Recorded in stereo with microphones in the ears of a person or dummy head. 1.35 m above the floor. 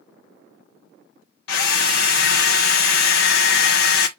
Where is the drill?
65° left (ahead or behind), 0.8 m.